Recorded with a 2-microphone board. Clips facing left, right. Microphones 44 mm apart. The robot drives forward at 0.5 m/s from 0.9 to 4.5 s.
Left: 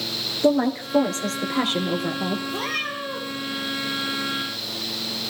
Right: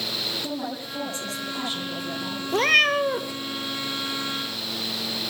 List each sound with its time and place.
0.4 s a woman speaking: 60° left (ahead or behind), 3.5 m; by 2.4 s 55° left (ahead or behind), 3.5 m
2.5 s a cat meowing: 55° right (ahead or behind), 1.2 m; by 3.3 s 70° right (ahead or behind), 1.0 m